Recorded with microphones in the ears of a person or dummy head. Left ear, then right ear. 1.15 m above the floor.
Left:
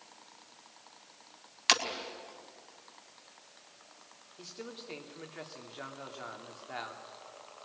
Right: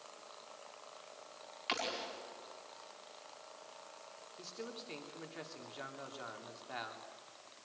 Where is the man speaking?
5° left (ahead or behind), 2.5 m.